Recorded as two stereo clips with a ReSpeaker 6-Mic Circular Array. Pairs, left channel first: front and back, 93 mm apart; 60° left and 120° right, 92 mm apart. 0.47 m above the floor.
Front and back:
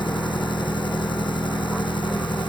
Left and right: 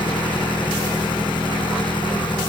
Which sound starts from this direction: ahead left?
An engine running, at 0.0 s.